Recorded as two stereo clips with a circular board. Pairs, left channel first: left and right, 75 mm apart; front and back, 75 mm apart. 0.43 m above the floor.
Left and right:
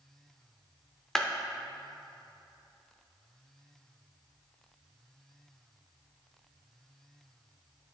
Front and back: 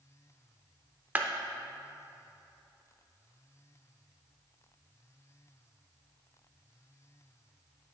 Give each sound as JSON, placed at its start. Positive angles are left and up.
{"t": 1.1, "sound": "a clap", "azimuth_deg": 165, "distance_m": 0.5}